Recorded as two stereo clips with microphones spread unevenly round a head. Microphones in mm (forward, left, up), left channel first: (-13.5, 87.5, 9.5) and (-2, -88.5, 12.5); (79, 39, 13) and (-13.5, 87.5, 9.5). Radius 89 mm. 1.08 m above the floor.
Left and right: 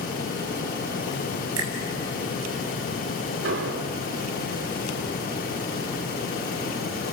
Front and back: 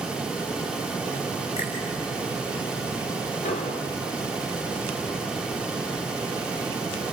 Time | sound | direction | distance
1.6 | a finger snap | 85° right | 8 m
3.4 | an explosion | 65° right | 3 m